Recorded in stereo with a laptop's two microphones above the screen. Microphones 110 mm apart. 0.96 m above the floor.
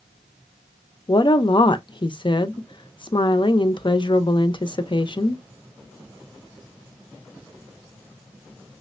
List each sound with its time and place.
1.1 s a woman speaking: 45° left (ahead or behind), 0.6 m